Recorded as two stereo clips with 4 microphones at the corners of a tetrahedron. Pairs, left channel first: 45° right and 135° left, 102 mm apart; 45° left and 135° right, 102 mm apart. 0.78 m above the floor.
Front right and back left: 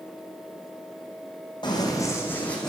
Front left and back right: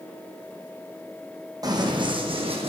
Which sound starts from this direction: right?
Running footsteps, at 1.6 s.